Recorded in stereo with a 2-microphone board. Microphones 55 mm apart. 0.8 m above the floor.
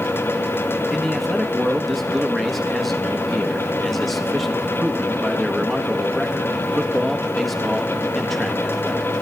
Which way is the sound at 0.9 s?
Centre (ahead or behind).